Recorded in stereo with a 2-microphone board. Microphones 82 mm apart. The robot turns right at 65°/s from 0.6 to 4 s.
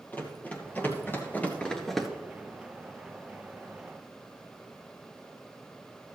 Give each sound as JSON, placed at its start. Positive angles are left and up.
{"t": 0.1, "sound": "running footsteps", "side_deg": 20, "distance_m": 2.5}